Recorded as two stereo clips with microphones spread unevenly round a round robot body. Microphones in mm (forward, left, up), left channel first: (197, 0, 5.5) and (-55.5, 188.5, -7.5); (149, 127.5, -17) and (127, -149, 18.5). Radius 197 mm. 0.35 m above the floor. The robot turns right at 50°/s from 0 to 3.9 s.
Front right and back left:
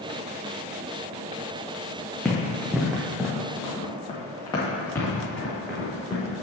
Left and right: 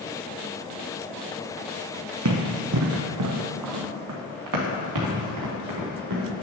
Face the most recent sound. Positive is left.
turn(degrees=-130)